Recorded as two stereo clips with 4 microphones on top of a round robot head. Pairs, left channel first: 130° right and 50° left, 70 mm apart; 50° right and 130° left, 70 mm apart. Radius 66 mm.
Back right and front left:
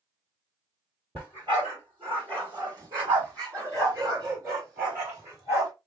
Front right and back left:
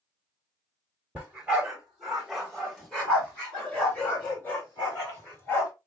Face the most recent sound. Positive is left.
turn(degrees=5)